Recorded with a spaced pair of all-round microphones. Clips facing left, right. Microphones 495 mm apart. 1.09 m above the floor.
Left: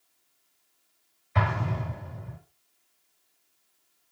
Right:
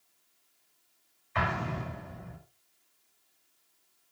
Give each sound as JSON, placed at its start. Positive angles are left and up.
{"t": 1.4, "sound": "an explosion", "side_deg": 55, "distance_m": 4.5}